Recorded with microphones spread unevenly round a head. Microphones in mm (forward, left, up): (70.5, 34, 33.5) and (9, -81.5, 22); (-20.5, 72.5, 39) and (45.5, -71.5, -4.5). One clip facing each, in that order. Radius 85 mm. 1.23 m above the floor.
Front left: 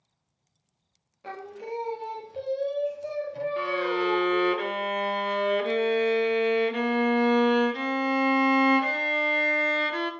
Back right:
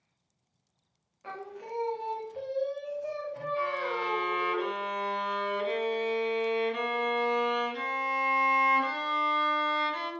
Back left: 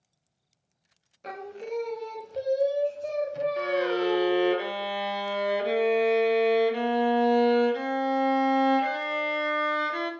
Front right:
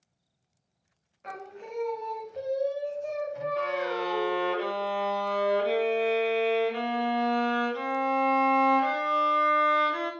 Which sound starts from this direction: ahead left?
A violin, at 3.6 s.